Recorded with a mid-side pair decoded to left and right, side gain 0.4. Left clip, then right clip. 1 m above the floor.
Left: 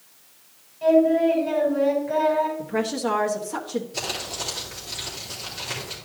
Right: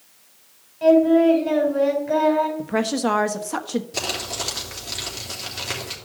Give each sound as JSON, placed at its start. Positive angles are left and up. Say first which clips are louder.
{"t": 0.8, "sound": "singing", "louder": "right 3 dB", "azimuth_deg": -55, "distance_m": 3.5}
{"t": 2.6, "sound": "a woman speaking", "louder": "right 3 dB", "azimuth_deg": -55, "distance_m": 1.2}
{"t": 3.9, "sound": "crumpling", "louder": "right 3 dB", "azimuth_deg": -65, "distance_m": 3.5}